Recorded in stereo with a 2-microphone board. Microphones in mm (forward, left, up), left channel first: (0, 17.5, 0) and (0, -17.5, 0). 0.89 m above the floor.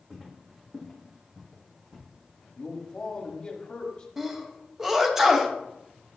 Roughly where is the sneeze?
Centre.